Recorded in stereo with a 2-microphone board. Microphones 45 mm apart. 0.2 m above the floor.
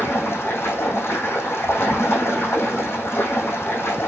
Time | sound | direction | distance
0.0 | running water | 70° left (ahead or behind) | 4 m